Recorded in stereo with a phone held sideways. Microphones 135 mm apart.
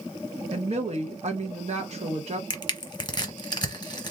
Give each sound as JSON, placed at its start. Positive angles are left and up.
{"t": 0.5, "sound": "a woman speaking", "side_deg": -55, "distance_m": 0.7}
{"t": 2.5, "sound": "crushing", "side_deg": 35, "distance_m": 1.0}